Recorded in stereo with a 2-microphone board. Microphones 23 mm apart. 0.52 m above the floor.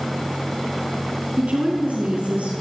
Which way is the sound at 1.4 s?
75° right (ahead or behind).